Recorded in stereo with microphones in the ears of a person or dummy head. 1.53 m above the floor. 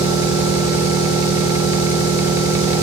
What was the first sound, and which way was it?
An engine running, 40° left (ahead or behind).